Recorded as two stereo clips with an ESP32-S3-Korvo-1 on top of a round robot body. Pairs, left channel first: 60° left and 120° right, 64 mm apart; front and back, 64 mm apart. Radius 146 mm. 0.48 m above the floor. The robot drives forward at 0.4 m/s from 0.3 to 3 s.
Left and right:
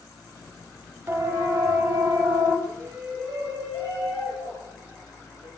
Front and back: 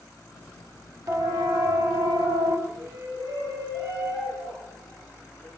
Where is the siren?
175° right, 3 m; by 2.6 s 175° left, 5 m.